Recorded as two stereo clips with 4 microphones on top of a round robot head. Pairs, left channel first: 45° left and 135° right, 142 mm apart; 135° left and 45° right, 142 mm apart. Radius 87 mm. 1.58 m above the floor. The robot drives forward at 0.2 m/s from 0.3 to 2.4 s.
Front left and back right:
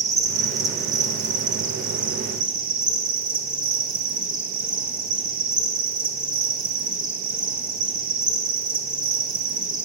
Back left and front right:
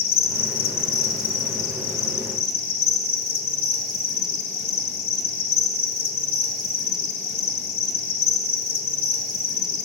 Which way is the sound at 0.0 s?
155° left.